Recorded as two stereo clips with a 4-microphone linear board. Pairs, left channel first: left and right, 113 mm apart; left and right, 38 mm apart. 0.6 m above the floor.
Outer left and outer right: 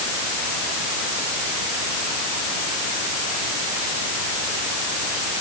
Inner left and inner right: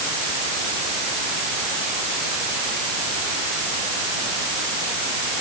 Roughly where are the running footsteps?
No running footsteps in this recording.